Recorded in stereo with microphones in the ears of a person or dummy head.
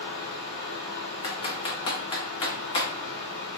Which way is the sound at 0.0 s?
50° left (ahead or behind).